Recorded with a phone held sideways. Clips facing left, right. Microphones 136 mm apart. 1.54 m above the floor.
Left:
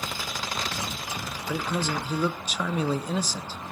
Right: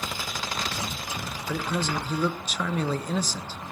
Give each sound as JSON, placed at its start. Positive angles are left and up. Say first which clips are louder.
{"t": 1.5, "sound": "a man speaking", "louder": "even", "side_deg": 5, "distance_m": 0.9}